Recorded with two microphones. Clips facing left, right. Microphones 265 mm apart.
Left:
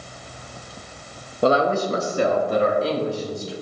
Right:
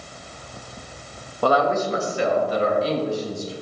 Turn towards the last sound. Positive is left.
turn(degrees=70)  # may be behind; listen again after turning